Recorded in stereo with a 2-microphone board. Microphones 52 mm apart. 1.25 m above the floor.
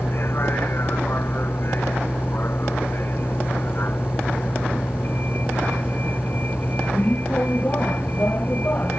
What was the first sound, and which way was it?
A vehicle, 45° left (ahead or behind).